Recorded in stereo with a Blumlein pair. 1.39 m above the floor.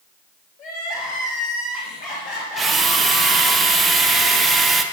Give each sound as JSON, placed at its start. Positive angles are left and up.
{"t": 0.6, "sound": "crying", "azimuth_deg": 35, "distance_m": 2.5}
{"t": 2.6, "sound": "a drill", "azimuth_deg": -10, "distance_m": 0.7}